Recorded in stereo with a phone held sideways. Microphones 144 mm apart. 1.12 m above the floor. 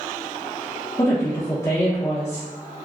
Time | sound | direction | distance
1.0 | a woman speaking | 25° left (ahead or behind) | 0.8 m